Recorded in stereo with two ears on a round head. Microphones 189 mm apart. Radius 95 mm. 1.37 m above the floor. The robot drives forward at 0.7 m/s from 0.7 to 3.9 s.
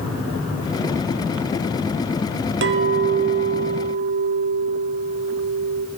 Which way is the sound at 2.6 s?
55° right (ahead or behind).